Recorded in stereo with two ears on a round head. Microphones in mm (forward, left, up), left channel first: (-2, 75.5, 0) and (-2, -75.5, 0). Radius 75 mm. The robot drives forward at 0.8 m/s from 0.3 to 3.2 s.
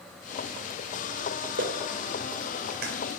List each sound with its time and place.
1.6 s a clap: 80° right, 2.5 m; by 2.9 s 60° right (ahead or behind), 2.5 m